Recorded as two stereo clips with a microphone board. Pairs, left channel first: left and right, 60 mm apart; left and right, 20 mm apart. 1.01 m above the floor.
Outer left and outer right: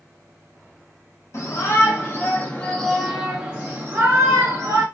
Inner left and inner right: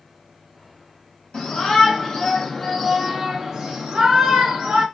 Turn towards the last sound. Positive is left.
turn(degrees=-55)  # may be behind; listen again after turning